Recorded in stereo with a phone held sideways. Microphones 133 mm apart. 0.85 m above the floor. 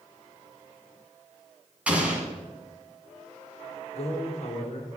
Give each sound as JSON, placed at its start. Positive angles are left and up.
{"t": 1.9, "sound": "an explosion", "side_deg": -10, "distance_m": 1.7}
{"t": 3.9, "sound": "a man speaking", "side_deg": 55, "distance_m": 1.5}